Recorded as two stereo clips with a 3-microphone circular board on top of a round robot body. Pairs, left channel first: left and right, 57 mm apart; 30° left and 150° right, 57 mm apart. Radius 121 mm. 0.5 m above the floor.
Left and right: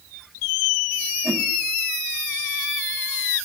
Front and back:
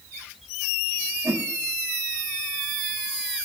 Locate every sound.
1.2 s a whoosh: 175° left, 3 m